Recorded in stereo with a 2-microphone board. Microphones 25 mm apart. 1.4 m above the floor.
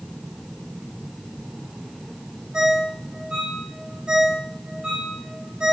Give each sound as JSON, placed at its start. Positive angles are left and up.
{"t": 2.5, "sound": "a ringtone", "side_deg": -35, "distance_m": 2.0}